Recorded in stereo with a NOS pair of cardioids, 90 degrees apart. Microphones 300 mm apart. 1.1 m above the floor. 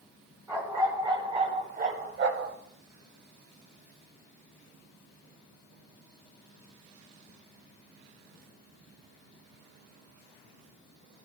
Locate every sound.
0.5 s a dog barking: 10° right, 3 m; by 2.6 s 55° right, 1.5 m